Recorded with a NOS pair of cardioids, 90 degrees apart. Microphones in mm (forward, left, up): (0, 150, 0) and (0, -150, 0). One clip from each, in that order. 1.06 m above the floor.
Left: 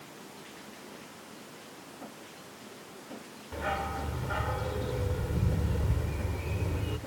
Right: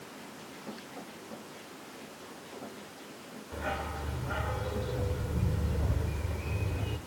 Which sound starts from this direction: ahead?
A dog barking, at 3.5 s.